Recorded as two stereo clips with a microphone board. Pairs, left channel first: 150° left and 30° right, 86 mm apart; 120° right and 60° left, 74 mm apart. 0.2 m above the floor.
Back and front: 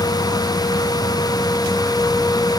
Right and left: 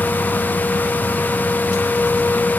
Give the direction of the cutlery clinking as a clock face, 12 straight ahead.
No cutlery clinking in this recording.